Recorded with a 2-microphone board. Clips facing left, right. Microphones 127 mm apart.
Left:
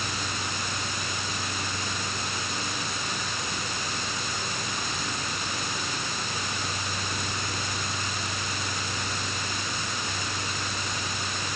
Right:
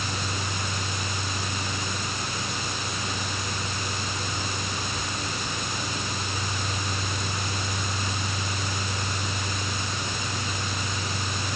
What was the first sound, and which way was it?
Only background noise.